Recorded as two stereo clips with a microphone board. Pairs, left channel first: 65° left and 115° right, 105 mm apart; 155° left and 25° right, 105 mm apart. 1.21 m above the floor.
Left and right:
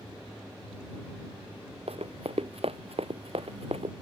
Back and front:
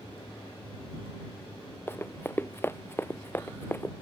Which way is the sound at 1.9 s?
135° right.